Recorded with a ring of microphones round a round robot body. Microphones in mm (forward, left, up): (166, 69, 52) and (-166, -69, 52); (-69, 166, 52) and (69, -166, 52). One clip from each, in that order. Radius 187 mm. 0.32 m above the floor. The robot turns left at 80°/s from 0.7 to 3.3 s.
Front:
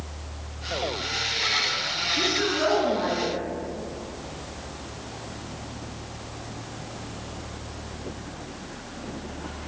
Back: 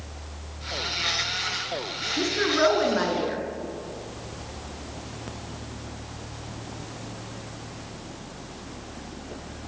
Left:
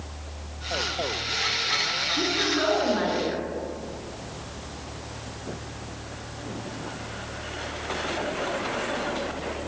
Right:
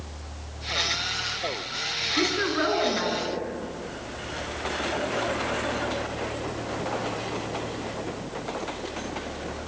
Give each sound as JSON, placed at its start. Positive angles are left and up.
{"t": 2.2, "sound": "a woman speaking", "azimuth_deg": -90, "distance_m": 5.0}